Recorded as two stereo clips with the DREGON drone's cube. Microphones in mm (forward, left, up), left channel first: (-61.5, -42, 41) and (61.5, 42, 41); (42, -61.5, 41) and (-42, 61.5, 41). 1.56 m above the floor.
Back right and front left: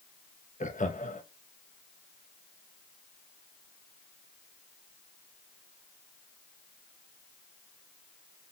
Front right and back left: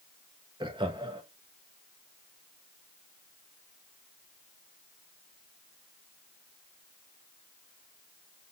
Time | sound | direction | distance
0.6 | laughter | straight behind | 1.1 m